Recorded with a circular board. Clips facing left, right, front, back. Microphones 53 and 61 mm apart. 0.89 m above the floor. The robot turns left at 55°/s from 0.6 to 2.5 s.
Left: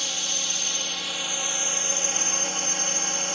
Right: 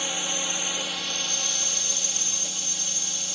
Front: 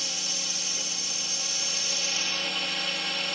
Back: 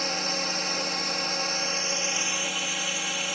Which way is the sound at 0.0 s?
155° right.